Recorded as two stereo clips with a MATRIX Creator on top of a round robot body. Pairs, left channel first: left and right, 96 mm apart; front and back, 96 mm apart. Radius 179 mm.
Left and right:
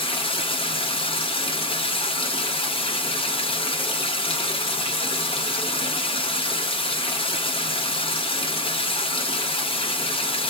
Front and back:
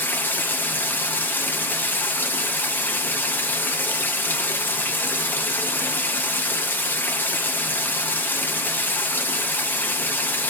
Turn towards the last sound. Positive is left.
turn(degrees=70)